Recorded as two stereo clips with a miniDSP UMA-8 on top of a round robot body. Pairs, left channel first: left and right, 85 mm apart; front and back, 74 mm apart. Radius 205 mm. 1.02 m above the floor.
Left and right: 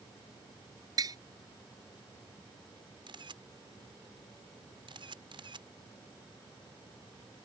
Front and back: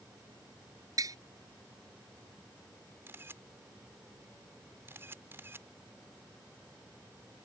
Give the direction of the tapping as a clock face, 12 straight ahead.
5 o'clock.